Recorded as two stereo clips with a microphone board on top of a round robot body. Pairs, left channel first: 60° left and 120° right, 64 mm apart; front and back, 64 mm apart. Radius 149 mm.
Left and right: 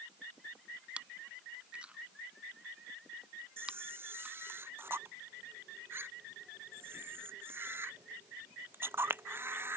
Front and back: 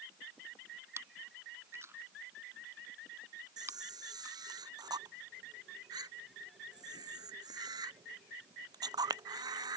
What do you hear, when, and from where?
1.0 s chewing: 175° left
3.6 s a camera shutter: 175° right